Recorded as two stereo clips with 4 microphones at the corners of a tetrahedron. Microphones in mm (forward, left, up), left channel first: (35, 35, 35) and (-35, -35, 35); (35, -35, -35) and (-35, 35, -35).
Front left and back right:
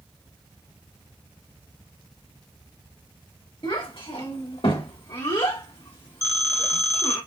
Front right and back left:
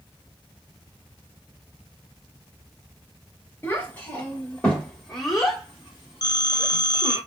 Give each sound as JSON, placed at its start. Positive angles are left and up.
{"t": 3.6, "sound": "a child speaking", "azimuth_deg": 20, "distance_m": 1.9}
{"t": 6.2, "sound": "a phone ringing", "azimuth_deg": -85, "distance_m": 0.8}